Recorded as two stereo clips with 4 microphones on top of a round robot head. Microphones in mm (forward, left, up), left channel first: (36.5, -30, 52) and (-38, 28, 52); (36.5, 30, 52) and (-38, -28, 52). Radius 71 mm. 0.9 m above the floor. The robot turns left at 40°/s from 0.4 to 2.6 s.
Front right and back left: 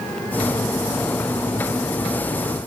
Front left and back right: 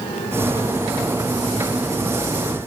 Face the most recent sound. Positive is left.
No sound to turn to.